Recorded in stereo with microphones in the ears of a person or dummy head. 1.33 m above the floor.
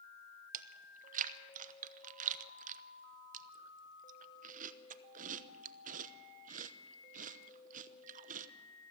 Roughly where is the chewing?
Right.